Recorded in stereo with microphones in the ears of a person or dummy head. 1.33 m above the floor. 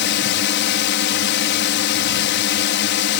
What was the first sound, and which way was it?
A drone, 60° left (ahead or behind).